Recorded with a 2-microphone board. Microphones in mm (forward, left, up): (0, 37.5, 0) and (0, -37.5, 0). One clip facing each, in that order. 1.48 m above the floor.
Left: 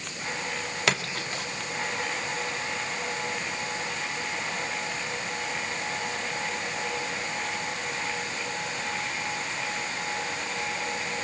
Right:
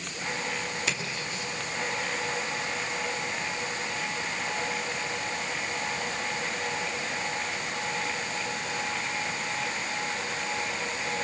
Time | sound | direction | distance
0.9 | a splash | 75° left (ahead or behind) | 2 m